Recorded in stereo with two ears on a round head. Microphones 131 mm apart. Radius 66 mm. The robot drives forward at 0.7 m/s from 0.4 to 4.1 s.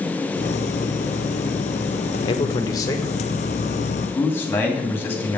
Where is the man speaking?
35° left (ahead or behind), 1.1 m; by 5.4 s 15° left (ahead or behind), 2.5 m.